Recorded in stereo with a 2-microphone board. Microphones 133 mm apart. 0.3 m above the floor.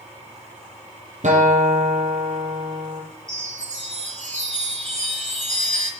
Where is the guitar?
70° right (ahead or behind), 5 m.